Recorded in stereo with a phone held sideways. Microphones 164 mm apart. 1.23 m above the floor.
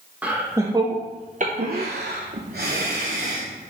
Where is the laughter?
10° right (ahead or behind), 1.2 m; by 3.5 s 55° right (ahead or behind), 1.5 m.